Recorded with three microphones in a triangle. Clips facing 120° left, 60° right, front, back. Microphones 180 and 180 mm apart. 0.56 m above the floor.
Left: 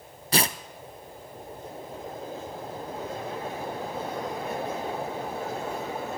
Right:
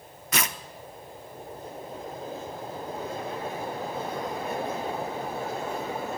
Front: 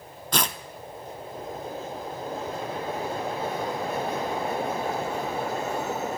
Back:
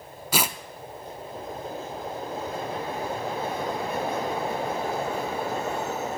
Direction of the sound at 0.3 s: 105° left.